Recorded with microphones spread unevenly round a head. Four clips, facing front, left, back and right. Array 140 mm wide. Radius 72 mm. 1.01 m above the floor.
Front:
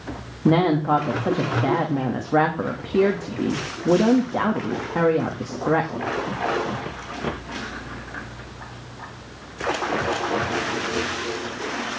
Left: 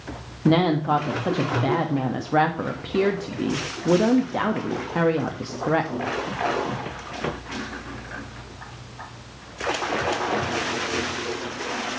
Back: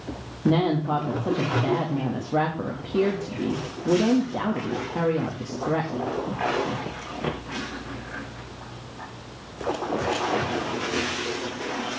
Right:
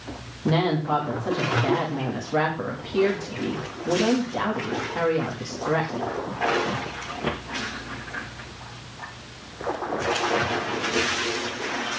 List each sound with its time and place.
0.5 s a woman speaking: 15° left, 1.5 m